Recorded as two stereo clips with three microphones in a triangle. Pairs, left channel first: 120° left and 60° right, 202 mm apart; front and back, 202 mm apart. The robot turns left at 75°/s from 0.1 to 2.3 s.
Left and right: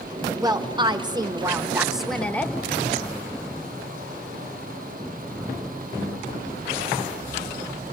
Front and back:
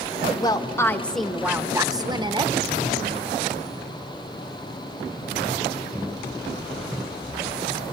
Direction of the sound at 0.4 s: 25° right.